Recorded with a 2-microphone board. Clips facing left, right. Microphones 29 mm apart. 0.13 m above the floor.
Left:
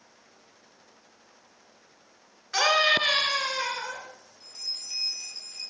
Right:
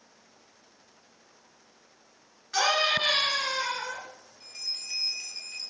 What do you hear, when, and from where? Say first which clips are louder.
2.5 s a scream: left 3 dB; 20° left (ahead or behind), 1.8 m
4.4 s a bell: even; 60° right (ahead or behind), 1.8 m